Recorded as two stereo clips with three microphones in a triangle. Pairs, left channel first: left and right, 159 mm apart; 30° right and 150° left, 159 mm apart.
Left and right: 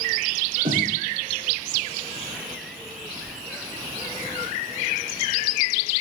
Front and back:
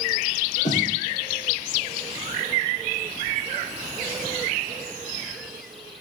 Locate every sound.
0.7 s a snare drum: 65° right, 4 m